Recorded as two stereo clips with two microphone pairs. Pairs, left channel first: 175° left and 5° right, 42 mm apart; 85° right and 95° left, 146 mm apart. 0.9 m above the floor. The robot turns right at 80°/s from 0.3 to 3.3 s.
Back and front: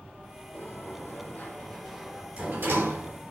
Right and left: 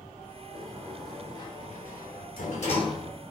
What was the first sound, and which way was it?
A sliding door, 145° left.